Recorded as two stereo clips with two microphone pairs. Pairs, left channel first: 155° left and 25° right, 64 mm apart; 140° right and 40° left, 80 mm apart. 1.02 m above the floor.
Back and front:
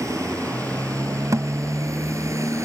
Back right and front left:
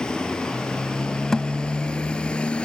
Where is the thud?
55° right.